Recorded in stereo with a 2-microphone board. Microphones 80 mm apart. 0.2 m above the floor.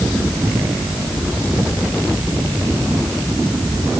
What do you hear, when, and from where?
Only background noise.